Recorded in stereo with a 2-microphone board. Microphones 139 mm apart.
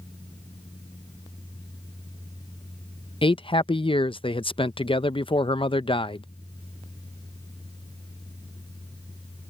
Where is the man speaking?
40° left (ahead or behind).